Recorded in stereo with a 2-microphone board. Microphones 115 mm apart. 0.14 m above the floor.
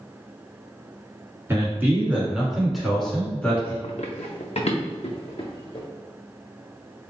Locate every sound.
1.5 s a man speaking: 25° right (ahead or behind), 1.6 m; by 3.7 s 20° left (ahead or behind), 1.5 m
3.8 s running footsteps: 80° left, 0.5 m; by 5.8 s 60° left (ahead or behind), 1.6 m